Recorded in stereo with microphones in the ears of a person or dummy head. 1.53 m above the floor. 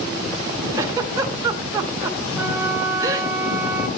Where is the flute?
10° right (ahead or behind), 3 m.